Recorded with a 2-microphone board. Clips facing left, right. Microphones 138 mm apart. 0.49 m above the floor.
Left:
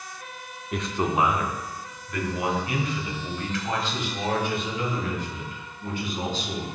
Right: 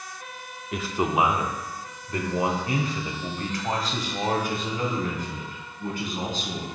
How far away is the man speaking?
About 0.7 m.